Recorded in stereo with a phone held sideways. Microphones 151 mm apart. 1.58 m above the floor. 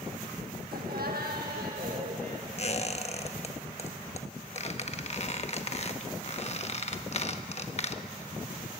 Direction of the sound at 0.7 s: 75° right (ahead or behind).